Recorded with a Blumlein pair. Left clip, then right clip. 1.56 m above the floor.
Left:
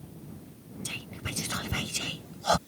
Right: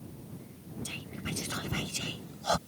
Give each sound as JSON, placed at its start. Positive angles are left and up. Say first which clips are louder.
{"t": 0.8, "sound": "whispering", "louder": "left 3 dB", "azimuth_deg": 10}